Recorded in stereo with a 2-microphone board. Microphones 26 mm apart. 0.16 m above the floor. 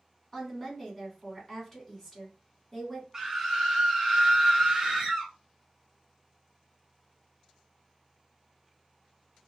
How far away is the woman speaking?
About 1.1 m.